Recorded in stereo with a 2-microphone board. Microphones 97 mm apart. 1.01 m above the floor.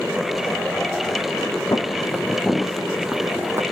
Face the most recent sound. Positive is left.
turn(degrees=-30)  # may be behind; listen again after turning